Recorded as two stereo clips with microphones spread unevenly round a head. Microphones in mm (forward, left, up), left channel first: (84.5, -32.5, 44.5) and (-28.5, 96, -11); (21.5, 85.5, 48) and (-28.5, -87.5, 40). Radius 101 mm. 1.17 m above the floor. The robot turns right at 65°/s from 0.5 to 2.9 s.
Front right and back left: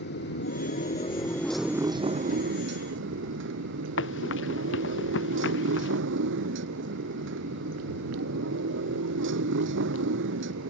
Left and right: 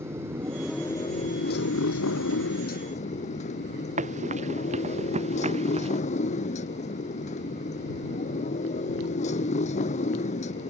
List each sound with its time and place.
0.0 s a motorcycle: 30° right; by 10.7 s 125° left
4.0 s running footsteps: 50° right; by 6.0 s 45° right